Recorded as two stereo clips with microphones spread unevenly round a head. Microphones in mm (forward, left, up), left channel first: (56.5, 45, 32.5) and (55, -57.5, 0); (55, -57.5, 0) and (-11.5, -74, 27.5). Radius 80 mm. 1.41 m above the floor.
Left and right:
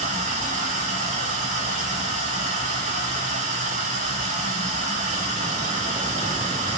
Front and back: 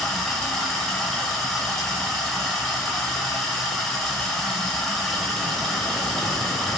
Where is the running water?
90° right, 0.9 m.